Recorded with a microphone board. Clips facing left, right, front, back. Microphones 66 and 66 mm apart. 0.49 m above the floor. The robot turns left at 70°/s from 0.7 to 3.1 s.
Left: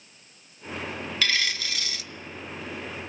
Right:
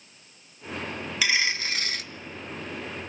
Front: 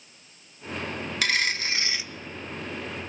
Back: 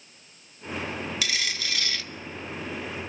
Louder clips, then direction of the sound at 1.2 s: Right 2 dB, front 5 dB; 15° right.